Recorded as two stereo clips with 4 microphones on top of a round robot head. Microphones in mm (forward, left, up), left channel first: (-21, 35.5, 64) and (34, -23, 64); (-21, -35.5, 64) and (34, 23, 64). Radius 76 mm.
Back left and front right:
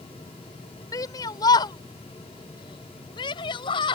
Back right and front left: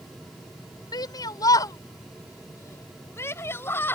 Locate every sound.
0.9 s a shout: straight behind; by 4.0 s 160° left